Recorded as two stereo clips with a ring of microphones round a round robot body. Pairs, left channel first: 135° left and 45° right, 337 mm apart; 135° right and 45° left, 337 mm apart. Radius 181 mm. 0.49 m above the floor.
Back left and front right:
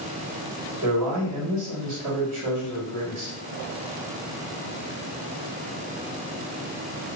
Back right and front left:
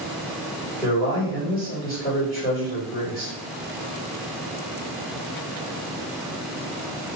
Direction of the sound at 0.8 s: 75° right.